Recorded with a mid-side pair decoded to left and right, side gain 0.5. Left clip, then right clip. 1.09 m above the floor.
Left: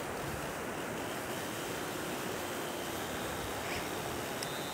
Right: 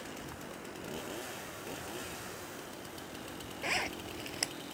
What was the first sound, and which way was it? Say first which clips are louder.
Running water: left 7 dB; 50° left.